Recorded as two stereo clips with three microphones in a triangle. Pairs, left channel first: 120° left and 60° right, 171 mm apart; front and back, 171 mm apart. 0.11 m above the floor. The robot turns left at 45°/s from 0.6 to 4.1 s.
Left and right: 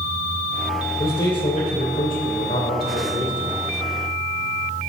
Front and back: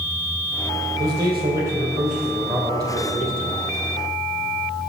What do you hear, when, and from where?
1.0 s a man speaking: 165° right, 3 m; by 3.5 s 80° left, 3 m